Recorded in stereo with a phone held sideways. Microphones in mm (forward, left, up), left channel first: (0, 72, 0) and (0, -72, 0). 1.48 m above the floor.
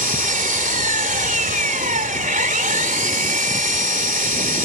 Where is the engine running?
70° right (ahead or behind).